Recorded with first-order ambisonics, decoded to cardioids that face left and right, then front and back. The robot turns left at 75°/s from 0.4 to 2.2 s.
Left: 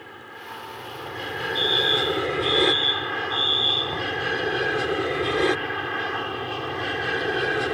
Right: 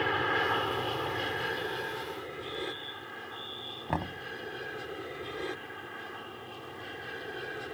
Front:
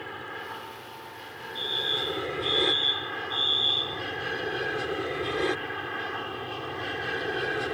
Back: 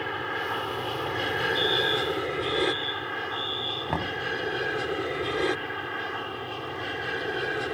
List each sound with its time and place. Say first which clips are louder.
0.0 s an aircraft: right 12 dB, back 7 dB; 120° right; by 7.8 s 90° left
1.6 s a fire alarm: left 15 dB, even; 110° left; by 4.0 s 65° left
3.9 s knocking: left 8 dB, back 3 dB; 155° right